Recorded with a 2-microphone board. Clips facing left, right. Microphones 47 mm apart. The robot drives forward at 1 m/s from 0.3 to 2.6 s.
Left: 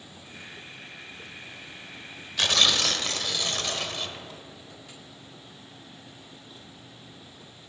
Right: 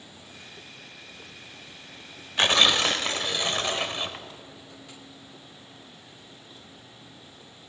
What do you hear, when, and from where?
2.4 s tearing paper: 35° right (ahead or behind), 0.6 m; by 4.2 s 25° right (ahead or behind), 0.8 m